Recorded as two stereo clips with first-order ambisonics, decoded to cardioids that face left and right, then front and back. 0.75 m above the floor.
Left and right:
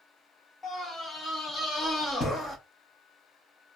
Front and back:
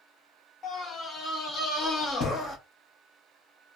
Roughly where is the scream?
Ahead left.